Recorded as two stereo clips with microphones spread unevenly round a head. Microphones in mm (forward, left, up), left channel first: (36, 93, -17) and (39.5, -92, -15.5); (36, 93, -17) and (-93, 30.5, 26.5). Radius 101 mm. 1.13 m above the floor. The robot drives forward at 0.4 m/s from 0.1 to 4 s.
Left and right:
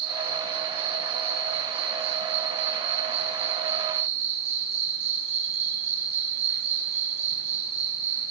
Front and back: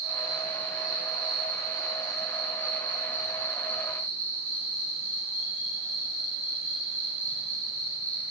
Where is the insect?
30° right, 6.5 m; by 8.3 s 35° right, 5.5 m.